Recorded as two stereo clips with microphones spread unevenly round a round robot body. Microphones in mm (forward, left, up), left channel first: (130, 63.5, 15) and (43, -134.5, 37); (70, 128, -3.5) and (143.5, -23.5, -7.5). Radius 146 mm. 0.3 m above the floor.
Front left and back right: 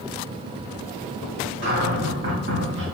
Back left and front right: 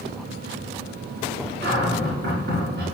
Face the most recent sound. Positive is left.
turn(degrees=-85)